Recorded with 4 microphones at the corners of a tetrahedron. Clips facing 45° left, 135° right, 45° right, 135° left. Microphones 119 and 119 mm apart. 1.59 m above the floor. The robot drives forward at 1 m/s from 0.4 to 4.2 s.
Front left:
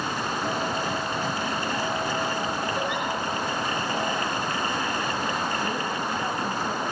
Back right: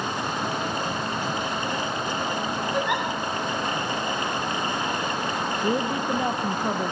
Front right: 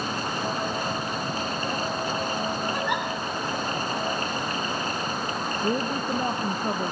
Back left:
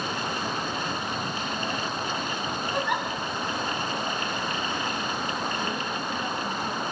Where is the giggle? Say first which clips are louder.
Back right 3 dB, even; 135° right, 9 m.